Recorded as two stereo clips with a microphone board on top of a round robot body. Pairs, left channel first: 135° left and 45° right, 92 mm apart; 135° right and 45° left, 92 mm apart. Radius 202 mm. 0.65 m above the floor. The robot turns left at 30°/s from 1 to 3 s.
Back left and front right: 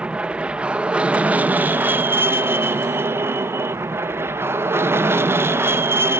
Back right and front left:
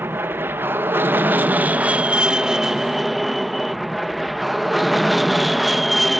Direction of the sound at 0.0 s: 15° left.